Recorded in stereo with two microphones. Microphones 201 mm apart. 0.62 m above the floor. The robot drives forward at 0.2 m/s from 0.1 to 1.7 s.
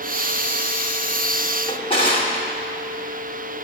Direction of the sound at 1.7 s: 25° left (ahead or behind).